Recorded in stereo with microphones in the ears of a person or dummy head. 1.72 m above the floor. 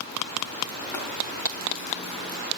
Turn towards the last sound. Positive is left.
turn(degrees=20)  # may be behind; listen again after turning